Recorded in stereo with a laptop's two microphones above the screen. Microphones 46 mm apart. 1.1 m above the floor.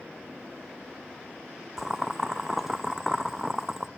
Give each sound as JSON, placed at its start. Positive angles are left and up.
{"t": 1.8, "sound": "boiling", "side_deg": -5, "distance_m": 0.5}